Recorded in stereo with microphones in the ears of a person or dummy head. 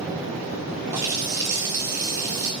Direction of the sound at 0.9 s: 10° right (ahead or behind).